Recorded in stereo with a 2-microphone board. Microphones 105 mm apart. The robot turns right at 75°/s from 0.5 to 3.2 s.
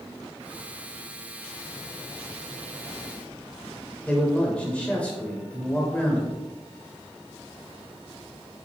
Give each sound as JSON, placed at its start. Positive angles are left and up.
{"t": 4.1, "sound": "a man speaking", "side_deg": 10, "distance_m": 1.0}